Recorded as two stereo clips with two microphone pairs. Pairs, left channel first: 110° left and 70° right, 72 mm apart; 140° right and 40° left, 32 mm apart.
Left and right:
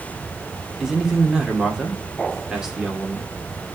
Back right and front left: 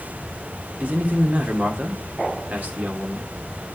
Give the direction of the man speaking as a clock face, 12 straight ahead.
12 o'clock.